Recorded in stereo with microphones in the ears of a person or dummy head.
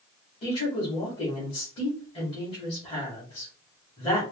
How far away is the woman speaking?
About 1.9 m.